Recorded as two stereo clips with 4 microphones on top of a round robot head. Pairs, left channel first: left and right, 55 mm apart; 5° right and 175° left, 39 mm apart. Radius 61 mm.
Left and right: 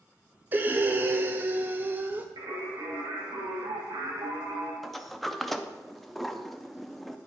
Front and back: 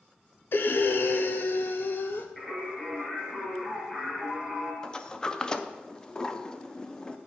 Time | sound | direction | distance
0.5 | breathing | 35° right | 0.6 m
2.4 | singing | 85° right | 2.5 m
4.8 | a sliding door | 10° left | 0.6 m